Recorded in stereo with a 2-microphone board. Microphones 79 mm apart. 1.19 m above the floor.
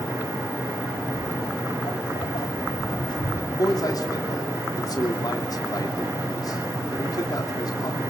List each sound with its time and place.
1.1 s footsteps: 65° left (ahead or behind), 3 m; by 3.4 s 70° left (ahead or behind), 4 m
3.5 s a man speaking: 50° left (ahead or behind), 2.5 m